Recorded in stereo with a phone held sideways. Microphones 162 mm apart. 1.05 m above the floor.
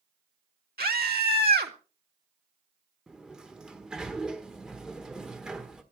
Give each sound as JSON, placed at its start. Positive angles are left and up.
{"t": 0.8, "sound": "a scream", "side_deg": -70, "distance_m": 2.0}
{"t": 3.1, "sound": "a sliding door", "side_deg": -5, "distance_m": 1.4}